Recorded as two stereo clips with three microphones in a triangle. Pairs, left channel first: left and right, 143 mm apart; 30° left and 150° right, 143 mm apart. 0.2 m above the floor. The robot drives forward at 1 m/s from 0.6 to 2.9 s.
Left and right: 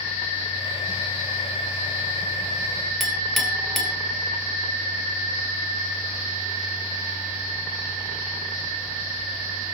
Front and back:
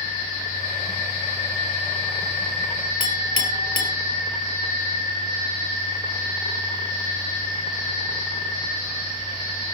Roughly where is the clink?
Behind.